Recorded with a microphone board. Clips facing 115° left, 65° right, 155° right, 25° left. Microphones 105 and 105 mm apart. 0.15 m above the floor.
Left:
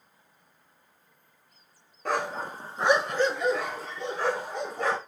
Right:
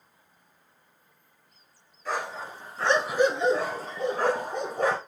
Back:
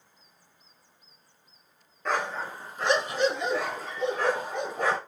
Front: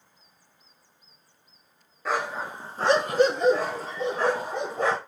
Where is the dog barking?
105° left, 0.9 m; by 5.0 s 35° right, 2.0 m.